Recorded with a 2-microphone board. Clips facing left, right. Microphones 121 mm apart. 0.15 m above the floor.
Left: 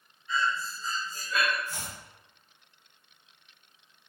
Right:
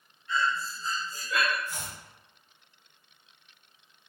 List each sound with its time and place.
0.3 s breathing: 80° right, 0.6 m
1.7 s chopping: 15° right (ahead or behind), 1.4 m